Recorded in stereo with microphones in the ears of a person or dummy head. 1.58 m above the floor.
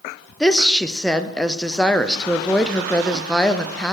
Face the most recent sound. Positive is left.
turn(degrees=10)  # may be behind; listen again after turning